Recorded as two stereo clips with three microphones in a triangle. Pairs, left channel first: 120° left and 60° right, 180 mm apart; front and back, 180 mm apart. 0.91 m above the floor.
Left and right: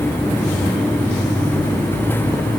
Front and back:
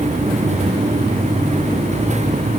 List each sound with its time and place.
Only background noise.